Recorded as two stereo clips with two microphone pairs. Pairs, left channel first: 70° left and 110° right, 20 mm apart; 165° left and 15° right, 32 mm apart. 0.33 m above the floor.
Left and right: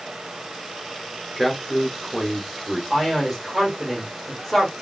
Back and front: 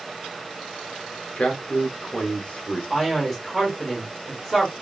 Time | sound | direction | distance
1.4 | a man speaking | 160° left | 1.0 m
2.9 | a man speaking | 75° left | 1.5 m